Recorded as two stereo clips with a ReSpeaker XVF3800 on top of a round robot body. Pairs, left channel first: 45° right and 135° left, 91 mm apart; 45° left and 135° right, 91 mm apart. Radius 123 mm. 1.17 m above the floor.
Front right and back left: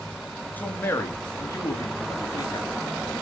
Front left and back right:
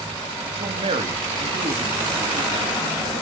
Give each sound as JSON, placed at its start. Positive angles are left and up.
{"t": 0.6, "sound": "a man speaking", "azimuth_deg": -115, "distance_m": 2.5}